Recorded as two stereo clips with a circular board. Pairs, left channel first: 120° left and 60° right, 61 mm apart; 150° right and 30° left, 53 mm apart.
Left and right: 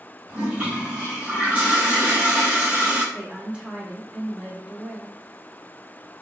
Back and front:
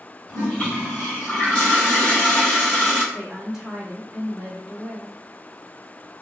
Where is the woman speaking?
45° right, 0.9 m.